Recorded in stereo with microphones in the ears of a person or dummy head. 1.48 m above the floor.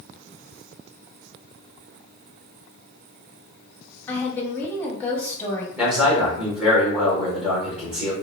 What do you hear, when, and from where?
4.1 s a woman speaking: 20° left (ahead or behind), 1.1 m
5.8 s a man speaking: 10° right (ahead or behind), 1.2 m